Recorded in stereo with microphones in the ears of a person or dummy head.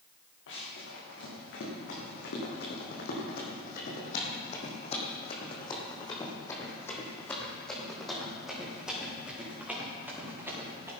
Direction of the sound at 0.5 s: 75° left (ahead or behind).